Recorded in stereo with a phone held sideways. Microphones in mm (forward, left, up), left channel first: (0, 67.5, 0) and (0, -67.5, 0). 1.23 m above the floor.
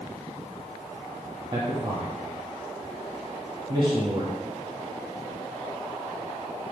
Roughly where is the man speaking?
Right.